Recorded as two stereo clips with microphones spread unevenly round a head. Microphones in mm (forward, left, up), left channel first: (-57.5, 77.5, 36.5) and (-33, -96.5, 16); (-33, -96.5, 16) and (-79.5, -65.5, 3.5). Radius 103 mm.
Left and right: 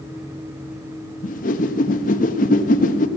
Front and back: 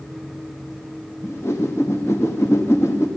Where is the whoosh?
45° left, 0.9 m.